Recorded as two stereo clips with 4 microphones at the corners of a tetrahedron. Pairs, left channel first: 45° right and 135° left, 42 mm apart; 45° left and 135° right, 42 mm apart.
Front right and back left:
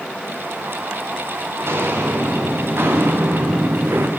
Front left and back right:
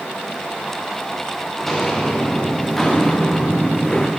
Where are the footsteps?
130° left, 5.5 m; by 4.1 s 120° left, 3 m.